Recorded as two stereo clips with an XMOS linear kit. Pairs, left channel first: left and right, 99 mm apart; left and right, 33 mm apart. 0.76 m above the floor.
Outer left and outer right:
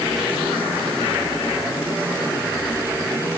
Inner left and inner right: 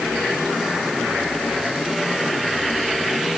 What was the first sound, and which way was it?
Only background noise.